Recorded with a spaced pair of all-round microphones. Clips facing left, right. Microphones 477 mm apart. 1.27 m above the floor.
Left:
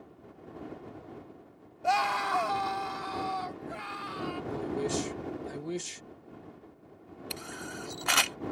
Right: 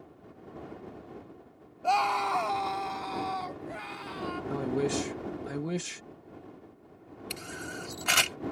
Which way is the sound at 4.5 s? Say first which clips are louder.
Right 4 dB; 75° right (ahead or behind).